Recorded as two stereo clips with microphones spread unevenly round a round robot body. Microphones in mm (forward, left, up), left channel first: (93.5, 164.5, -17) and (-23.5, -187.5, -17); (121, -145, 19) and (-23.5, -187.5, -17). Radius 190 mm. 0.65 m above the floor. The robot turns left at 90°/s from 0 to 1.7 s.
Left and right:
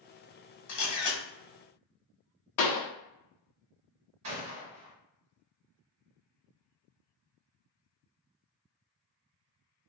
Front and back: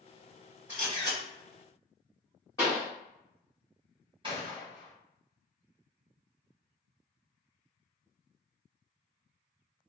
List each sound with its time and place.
0.7 s a camera shutter: 120° left, 1.2 m; by 1.2 s 75° left, 1.2 m
2.6 s a pop: 100° left, 0.7 m
4.2 s a gunshot: 145° right, 1.5 m